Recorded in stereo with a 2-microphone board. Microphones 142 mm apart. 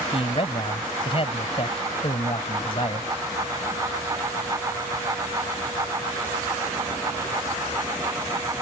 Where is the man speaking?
40° left (ahead or behind).